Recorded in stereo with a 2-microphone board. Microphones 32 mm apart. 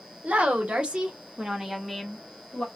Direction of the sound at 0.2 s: 55° right (ahead or behind).